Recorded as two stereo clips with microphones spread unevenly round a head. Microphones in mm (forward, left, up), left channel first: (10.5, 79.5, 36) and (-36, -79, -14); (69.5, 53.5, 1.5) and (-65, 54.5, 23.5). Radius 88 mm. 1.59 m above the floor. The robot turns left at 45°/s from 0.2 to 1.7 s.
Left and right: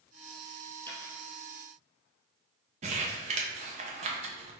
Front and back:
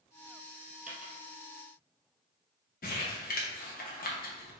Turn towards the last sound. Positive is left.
turn(degrees=-45)